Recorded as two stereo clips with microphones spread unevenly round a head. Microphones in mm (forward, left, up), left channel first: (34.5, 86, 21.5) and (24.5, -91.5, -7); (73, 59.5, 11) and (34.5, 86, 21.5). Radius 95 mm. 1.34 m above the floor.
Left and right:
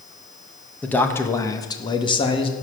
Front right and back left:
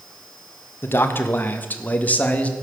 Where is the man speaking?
5° left, 1.3 m; by 2.5 s 25° left, 2.0 m.